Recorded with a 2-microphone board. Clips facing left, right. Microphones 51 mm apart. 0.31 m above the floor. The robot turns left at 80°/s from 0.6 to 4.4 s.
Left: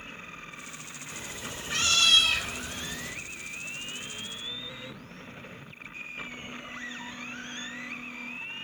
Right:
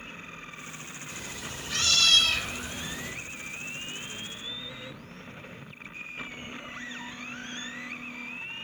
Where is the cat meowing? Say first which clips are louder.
Left 1 dB; 25° left (ahead or behind), 0.5 m; by 3.1 s 20° right (ahead or behind), 0.5 m.